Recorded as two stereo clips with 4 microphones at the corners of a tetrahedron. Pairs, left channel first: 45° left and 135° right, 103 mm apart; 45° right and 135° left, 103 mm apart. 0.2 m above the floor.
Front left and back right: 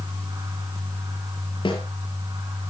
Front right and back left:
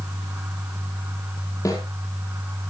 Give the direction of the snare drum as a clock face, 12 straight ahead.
12 o'clock.